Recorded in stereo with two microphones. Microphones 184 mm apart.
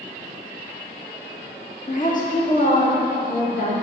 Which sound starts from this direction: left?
A woman speaking, at 1.9 s.